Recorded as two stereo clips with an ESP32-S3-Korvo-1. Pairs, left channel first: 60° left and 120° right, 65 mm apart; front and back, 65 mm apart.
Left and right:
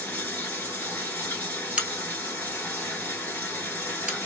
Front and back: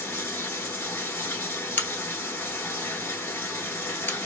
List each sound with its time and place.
0.0 s running water: 15° left, 1.3 m
1.8 s a crack: 50° right, 1.0 m